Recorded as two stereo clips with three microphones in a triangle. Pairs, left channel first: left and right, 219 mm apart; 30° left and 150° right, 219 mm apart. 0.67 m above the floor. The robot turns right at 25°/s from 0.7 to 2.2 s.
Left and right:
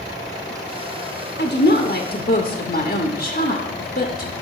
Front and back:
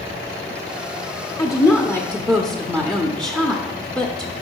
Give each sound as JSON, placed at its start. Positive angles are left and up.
{"t": 1.4, "sound": "a woman speaking", "azimuth_deg": 95, "distance_m": 1.0}